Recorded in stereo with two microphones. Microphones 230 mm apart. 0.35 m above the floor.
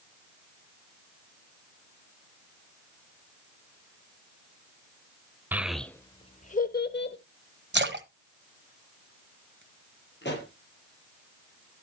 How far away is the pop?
About 3.5 m.